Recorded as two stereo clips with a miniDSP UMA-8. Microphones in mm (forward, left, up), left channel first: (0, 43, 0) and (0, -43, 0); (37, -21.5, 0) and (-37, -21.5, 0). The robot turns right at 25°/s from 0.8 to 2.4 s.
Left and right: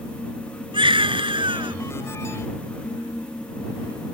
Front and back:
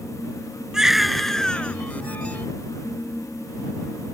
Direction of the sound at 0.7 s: 100° right.